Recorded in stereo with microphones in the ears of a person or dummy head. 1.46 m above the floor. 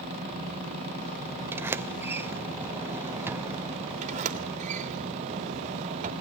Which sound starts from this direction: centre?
A sliding door, at 1.5 s.